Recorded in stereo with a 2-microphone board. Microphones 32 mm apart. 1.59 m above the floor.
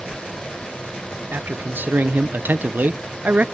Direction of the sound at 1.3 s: 85° right.